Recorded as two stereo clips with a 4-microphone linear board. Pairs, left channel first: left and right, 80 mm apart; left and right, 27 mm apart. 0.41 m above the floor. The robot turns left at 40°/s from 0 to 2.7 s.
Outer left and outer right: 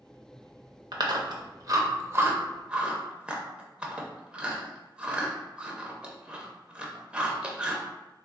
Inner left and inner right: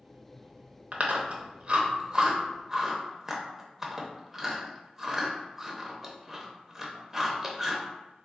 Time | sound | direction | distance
0.9 | chewing | 60° right (ahead or behind) | 0.5 m